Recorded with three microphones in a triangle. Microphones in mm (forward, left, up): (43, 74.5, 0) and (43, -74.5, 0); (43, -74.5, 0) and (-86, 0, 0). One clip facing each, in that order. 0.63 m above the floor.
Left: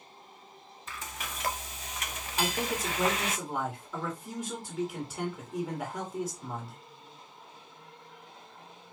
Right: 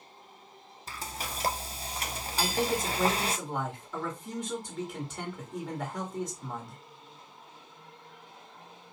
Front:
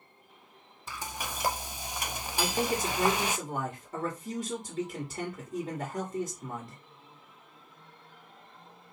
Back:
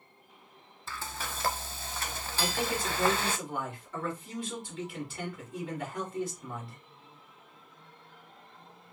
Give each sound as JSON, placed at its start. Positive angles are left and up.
{"t": 0.9, "sound": "frying", "azimuth_deg": -95, "distance_m": 0.5}
{"t": 2.4, "sound": "a man speaking", "azimuth_deg": 0, "distance_m": 1.8}